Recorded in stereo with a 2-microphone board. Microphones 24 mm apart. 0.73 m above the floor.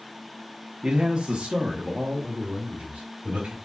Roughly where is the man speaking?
Right.